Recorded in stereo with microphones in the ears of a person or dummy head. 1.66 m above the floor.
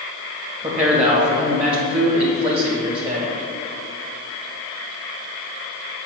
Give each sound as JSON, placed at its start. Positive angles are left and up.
{"t": 0.6, "sound": "a man speaking", "side_deg": -30, "distance_m": 1.6}